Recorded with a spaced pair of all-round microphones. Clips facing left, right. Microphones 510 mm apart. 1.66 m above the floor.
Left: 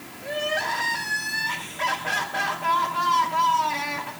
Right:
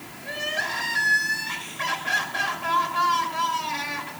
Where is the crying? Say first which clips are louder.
Left 6 dB; 60° left (ahead or behind), 4.5 m.